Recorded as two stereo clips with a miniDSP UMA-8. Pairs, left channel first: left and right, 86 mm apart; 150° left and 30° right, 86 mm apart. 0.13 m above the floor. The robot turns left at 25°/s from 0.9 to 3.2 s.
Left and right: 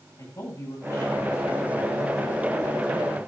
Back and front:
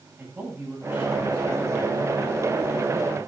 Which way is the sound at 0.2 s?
30° left.